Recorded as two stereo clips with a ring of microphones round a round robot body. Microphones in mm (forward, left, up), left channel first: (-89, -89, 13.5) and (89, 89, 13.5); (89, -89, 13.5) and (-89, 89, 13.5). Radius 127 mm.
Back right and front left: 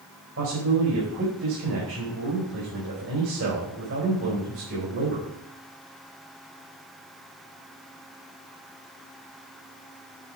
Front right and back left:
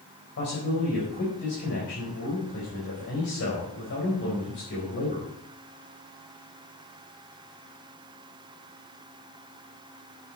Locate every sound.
0.4 s a man speaking: 5° left, 4 m